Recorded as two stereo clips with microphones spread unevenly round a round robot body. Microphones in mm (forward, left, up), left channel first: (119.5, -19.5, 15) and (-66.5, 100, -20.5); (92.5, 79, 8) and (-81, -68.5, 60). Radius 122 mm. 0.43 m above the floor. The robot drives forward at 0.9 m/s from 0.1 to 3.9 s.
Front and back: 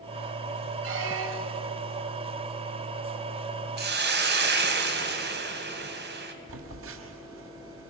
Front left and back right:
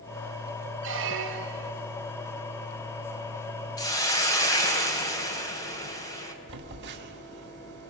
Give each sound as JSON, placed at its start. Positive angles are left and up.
{"t": 0.8, "sound": "a squeak", "azimuth_deg": 180, "distance_m": 1.4}
{"t": 3.8, "sound": "a hiss", "azimuth_deg": 110, "distance_m": 2.5}
{"t": 6.5, "sound": "a phone buzzing", "azimuth_deg": 175, "distance_m": 2.0}